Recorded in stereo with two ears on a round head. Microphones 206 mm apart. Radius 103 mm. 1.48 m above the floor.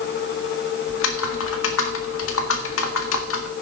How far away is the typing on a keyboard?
About 1.7 m.